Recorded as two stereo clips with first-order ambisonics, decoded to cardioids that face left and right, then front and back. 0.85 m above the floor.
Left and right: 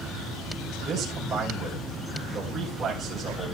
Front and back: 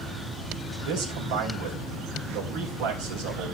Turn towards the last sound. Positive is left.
turn(degrees=-160)